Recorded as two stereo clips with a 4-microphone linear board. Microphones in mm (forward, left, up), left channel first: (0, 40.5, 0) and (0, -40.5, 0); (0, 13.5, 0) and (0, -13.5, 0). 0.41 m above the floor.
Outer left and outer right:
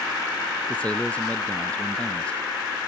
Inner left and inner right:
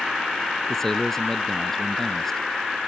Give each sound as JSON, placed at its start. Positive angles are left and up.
{"t": 0.7, "sound": "a man speaking", "side_deg": 15}